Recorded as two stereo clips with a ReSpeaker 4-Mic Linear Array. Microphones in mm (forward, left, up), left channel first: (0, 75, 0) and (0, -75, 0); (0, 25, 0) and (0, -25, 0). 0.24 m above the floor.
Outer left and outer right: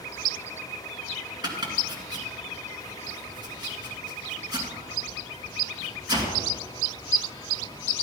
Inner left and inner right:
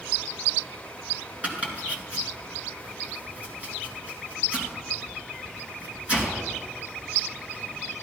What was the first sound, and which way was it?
Chopping, 30° right (ahead or behind).